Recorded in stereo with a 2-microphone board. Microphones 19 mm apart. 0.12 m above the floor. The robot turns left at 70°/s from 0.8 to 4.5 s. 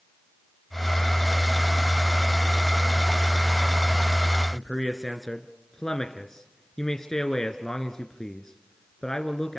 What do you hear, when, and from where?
4.5 s a man speaking: 30° left (ahead or behind), 1.8 m